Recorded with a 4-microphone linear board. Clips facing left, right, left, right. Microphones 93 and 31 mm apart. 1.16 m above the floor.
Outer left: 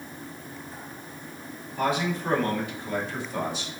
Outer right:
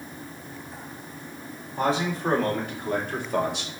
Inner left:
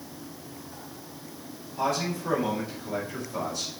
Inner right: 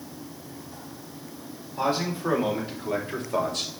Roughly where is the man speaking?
Right.